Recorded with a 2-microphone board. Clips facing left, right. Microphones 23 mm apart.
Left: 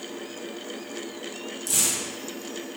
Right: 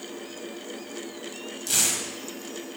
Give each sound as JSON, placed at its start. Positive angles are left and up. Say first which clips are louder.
{"t": 1.7, "sound": "tearing paper", "louder": "right 1 dB", "side_deg": -40, "distance_m": 1.1}